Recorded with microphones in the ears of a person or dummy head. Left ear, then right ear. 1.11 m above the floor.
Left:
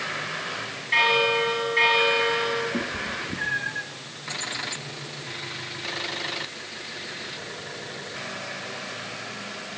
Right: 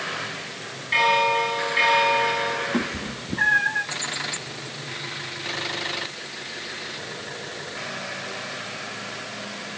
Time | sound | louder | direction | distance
0.9 | a bell | right 1 dB | 5° left (ahead or behind) | 8.5 m
2.7 | a cat meowing | even | 35° right (ahead or behind) | 0.7 m